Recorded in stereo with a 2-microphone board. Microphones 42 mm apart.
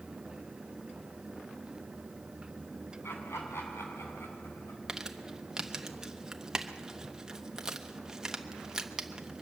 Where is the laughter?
85° left, 6 m.